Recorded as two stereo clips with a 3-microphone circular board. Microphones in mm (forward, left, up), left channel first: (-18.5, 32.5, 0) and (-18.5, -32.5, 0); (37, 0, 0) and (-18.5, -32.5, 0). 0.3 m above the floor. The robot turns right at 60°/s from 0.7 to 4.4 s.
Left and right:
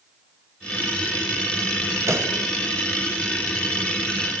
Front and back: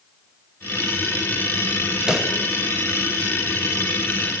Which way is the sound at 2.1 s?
75° right.